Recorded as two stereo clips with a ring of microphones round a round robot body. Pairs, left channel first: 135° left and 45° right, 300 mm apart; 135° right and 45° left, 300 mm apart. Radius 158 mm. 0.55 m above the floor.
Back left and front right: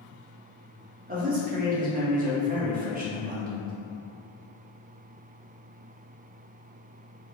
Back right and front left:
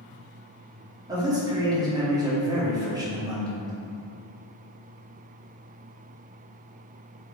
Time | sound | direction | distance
1.1 | a man speaking | 20° right | 0.8 m